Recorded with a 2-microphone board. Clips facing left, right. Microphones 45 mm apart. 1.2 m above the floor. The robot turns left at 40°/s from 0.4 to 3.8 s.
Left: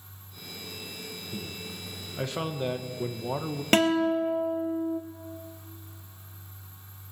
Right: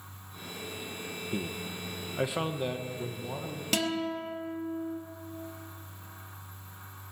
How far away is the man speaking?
About 0.9 m.